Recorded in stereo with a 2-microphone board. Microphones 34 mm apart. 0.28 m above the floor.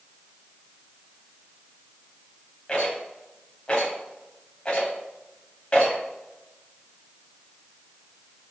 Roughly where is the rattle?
Left.